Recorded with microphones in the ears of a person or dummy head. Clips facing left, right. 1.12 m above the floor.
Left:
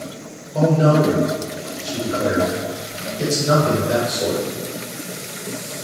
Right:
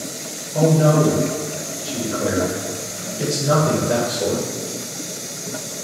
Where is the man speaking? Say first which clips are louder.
Even; 5° right (ahead or behind), 0.8 m.